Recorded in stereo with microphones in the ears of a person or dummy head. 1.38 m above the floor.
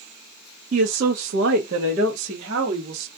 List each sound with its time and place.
0.7 s a woman speaking: 45° right (ahead or behind), 0.5 m; by 3.1 s 30° right (ahead or behind), 1.2 m